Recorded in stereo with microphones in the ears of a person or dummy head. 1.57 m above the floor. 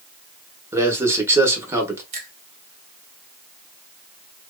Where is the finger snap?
40° right (ahead or behind), 1.7 m.